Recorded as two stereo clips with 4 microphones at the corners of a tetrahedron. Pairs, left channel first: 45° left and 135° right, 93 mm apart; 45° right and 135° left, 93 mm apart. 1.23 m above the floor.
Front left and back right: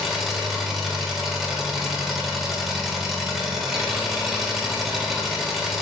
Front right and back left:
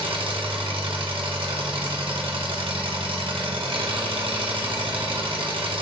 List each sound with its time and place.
0.0 s an engine running: 140° left, 0.8 m